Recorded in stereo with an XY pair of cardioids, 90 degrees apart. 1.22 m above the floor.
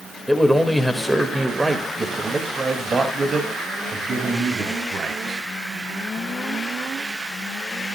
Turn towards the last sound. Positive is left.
turn(degrees=-60)